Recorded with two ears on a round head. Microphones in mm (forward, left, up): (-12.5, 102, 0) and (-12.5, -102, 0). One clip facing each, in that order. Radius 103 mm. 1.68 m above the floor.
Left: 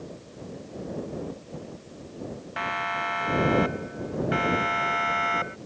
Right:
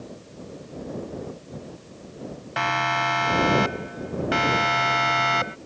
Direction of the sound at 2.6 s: 65° right (ahead or behind).